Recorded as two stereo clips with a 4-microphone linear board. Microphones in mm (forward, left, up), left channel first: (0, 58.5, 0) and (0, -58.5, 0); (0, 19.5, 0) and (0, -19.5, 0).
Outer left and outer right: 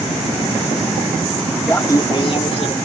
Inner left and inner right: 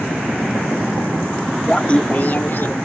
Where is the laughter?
15° left (ahead or behind); by 2.8 s 60° left (ahead or behind).